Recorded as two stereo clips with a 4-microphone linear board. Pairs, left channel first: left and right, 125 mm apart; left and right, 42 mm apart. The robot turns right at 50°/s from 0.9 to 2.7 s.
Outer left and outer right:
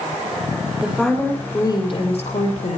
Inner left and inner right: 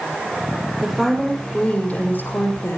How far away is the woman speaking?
About 5.5 m.